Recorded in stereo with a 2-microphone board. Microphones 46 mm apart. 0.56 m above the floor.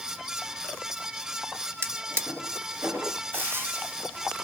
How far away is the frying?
About 1.9 m.